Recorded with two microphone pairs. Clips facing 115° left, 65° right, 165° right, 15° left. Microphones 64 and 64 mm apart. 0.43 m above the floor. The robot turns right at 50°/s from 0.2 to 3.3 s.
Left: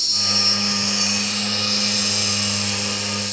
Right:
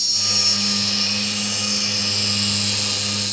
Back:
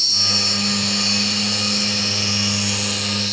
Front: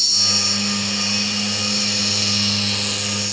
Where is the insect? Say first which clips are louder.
Left 3 dB, back 1 dB; 150° left, 1.1 m; by 3.3 s 55° right, 1.1 m.